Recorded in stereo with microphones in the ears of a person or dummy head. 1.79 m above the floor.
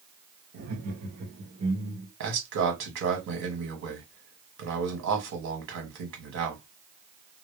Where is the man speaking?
75° right (ahead or behind), 1.3 m.